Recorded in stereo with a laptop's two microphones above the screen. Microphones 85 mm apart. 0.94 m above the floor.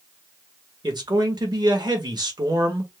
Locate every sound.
0.8 s a man speaking: 55° right (ahead or behind), 1.5 m